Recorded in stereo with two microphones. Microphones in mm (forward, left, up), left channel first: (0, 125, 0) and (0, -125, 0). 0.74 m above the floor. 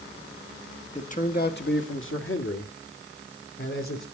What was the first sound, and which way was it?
A man speaking, 25° left (ahead or behind).